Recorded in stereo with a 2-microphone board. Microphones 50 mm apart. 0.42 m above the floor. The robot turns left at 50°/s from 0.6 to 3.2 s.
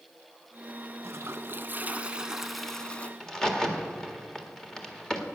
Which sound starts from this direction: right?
A toilet flushing, at 1.0 s.